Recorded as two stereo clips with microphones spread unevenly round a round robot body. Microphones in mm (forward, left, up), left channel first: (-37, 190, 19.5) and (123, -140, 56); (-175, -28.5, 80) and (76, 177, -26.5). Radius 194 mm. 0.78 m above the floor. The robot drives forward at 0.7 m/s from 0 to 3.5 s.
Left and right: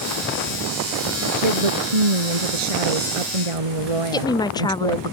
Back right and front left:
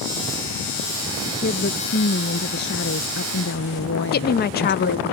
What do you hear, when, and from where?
1.2 s a woman speaking: 75° right; by 5.1 s 80° right
4.1 s a woman speaking: 155° left